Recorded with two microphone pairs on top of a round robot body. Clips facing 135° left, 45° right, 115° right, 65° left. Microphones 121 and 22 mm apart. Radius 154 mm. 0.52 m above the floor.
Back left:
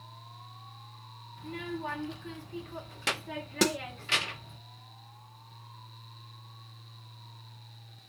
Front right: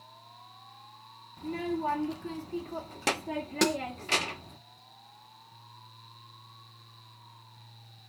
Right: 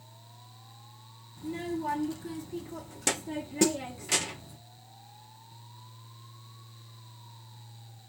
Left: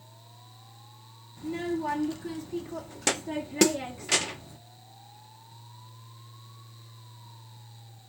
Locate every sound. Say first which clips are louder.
1.4 s a child speaking: front right 6 dB, left 3 dB; 5° right, 1.3 m
3.6 s a snare drum: front right 1 dB, left 3 dB; 50° left, 0.8 m